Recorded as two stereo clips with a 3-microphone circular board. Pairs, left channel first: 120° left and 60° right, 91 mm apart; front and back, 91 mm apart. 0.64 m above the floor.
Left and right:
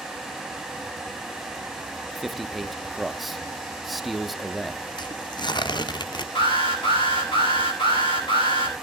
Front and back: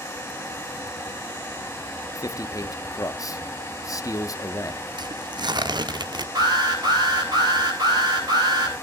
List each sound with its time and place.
2.1 s a man speaking: 30° left, 0.7 m
5.0 s tearing paper: 150° left, 0.7 m
6.3 s an alarm: 140° left, 6.5 m